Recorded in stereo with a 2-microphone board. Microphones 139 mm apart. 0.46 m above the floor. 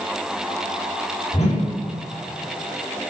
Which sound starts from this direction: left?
A whoosh, at 1.3 s.